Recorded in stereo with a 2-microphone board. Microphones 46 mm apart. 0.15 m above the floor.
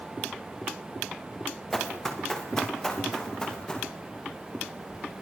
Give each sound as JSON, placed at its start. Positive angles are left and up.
{"t": 1.7, "sound": "running footsteps", "side_deg": 5, "distance_m": 6.0}